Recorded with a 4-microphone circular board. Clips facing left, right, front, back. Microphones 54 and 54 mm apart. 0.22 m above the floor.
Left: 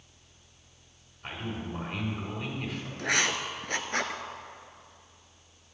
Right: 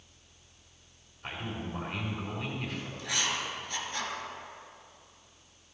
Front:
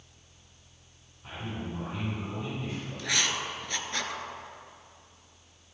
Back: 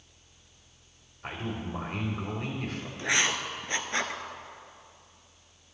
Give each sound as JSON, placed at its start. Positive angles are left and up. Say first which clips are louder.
{"t": 1.2, "sound": "a man speaking", "louder": "left 1 dB, back 2 dB", "azimuth_deg": 180, "distance_m": 4.5}
{"t": 3.0, "sound": "writing", "louder": "left 6 dB, back 3 dB", "azimuth_deg": 120, "distance_m": 0.9}